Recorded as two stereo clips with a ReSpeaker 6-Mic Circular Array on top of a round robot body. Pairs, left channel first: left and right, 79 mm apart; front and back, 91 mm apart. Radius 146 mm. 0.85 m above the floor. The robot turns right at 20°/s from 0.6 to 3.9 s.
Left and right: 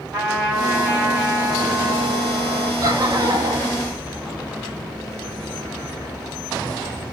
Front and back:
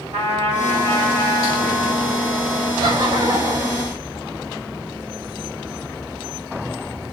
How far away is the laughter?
About 3.5 m.